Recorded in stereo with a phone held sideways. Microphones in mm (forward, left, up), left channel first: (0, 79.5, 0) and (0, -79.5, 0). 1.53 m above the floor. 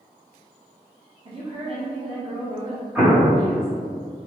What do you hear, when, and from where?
1.2 s a woman speaking: 35° right (ahead or behind), 0.8 m
3.0 s an explosion: 15° right (ahead or behind), 1.2 m